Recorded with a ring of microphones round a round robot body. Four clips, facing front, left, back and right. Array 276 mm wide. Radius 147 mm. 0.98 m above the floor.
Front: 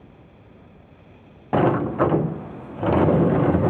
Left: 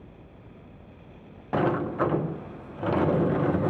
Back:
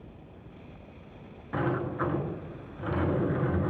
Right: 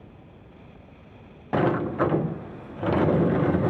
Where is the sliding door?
10° right, 0.6 m.